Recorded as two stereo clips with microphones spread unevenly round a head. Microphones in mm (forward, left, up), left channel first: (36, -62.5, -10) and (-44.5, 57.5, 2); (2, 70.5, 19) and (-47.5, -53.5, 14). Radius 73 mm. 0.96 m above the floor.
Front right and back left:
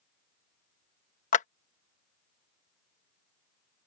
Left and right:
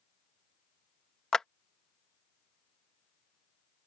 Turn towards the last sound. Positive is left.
turn(degrees=-20)